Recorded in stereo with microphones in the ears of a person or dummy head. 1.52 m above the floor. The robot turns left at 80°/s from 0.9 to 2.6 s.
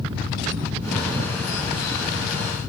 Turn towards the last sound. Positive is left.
No sound to turn to.